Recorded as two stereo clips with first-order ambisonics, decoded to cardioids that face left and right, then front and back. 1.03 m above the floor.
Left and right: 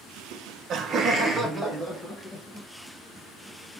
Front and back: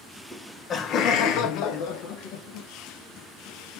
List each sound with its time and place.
0.3 s laughter: 80° right, 0.7 m; by 2.7 s 5° left, 1.5 m